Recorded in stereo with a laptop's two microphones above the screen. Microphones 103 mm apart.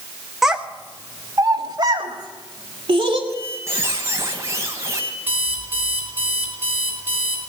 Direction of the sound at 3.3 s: 25° right (ahead or behind).